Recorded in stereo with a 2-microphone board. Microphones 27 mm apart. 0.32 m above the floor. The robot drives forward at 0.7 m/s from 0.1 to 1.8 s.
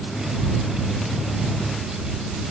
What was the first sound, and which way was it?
Only background noise.